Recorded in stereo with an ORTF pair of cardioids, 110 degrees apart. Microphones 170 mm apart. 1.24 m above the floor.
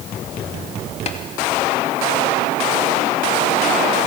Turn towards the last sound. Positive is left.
turn(degrees=40)